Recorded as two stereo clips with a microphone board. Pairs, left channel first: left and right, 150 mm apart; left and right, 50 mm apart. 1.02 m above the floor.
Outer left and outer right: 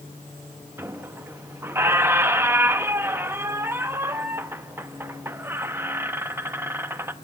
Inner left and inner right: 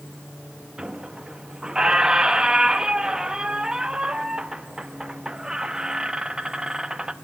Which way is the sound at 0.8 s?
15° right (ahead or behind).